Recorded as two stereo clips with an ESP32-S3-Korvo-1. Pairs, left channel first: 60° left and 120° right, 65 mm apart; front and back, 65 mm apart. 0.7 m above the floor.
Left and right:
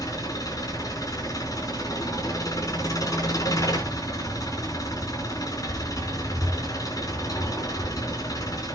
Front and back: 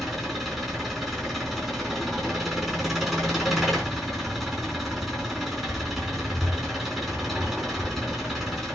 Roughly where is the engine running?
Left.